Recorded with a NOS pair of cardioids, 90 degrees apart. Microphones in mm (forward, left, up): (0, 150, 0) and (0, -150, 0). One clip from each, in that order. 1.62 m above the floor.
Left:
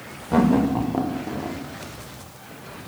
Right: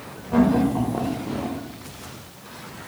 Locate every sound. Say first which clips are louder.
0.3 s laughter: even; 30° left, 1.4 m; by 1.6 s 5° right, 1.0 m